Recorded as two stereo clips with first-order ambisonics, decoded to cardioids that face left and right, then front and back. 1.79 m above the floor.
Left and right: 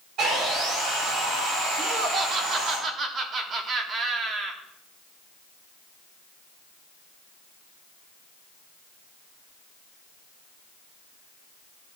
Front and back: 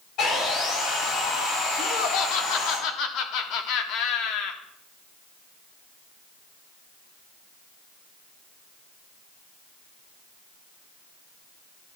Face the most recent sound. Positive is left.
turn(degrees=-30)